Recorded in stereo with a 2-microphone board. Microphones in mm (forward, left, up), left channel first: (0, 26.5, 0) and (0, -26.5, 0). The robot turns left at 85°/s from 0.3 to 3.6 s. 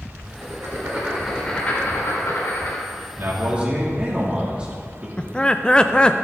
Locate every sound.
0.4 s writing: 70° right (ahead or behind), 3 m; by 2.8 s 50° left (ahead or behind), 3 m
3.2 s a man speaking: 125° right, 2.5 m; by 5.1 s 160° right, 2.5 m
5.2 s laughter: 15° left (ahead or behind), 0.5 m